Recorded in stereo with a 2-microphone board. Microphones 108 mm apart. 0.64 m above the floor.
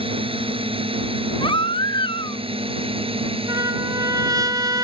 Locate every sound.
0.0 s a drone: 55° right (ahead or behind); by 4.8 s 60° right (ahead or behind)
1.4 s a baby crying: 50° left (ahead or behind)
3.5 s a trumpet: 35° right (ahead or behind)